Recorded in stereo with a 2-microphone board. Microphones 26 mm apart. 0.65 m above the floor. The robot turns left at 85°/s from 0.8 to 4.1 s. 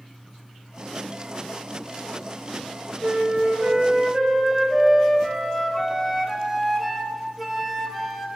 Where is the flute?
80° right, 1.6 m; by 8.3 s 175° right, 1.6 m.